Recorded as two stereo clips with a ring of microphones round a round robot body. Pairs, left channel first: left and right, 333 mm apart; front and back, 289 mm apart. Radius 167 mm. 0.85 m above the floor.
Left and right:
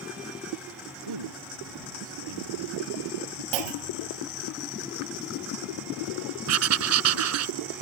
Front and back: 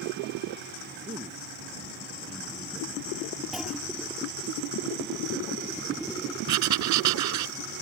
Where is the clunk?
90° right.